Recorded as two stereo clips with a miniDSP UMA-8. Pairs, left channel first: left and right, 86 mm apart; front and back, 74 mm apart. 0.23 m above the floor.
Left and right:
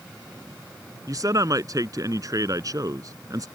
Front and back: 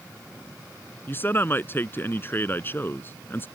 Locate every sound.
1.1 s a man speaking: 55° right